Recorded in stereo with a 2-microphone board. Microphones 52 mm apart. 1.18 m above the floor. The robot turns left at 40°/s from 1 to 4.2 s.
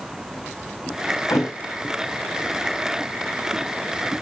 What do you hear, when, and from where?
1.3 s a thud: 75° left (ahead or behind), 6 m; by 1.5 s 70° left (ahead or behind), 6 m